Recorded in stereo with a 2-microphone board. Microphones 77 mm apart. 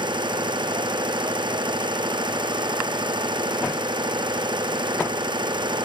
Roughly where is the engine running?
Right.